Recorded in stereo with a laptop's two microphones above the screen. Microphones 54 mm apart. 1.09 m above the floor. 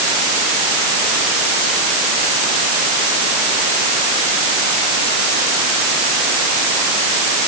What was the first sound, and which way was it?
Only background noise.